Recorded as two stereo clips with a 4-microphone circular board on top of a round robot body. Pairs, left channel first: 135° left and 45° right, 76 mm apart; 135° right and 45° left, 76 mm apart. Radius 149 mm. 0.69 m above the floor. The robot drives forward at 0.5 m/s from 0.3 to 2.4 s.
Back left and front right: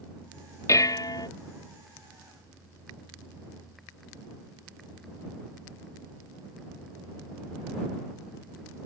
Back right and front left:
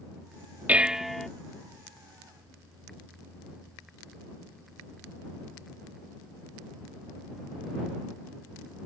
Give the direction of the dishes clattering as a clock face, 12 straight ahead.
8 o'clock.